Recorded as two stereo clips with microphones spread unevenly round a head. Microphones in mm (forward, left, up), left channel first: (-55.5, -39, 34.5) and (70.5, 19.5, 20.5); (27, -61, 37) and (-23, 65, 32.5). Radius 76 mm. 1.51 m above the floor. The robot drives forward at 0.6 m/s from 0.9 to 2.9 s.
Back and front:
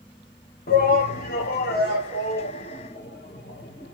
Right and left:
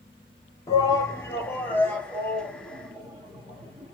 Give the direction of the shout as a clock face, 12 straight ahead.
4 o'clock.